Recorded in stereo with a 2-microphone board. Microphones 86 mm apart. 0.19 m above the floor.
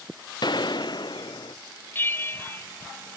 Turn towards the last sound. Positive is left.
turn(degrees=25)  # may be behind; listen again after turning